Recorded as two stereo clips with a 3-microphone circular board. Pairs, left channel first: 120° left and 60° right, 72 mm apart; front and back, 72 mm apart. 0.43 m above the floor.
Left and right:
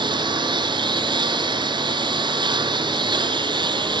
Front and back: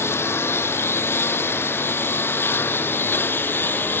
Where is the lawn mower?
60° right; by 4.0 s 65° right.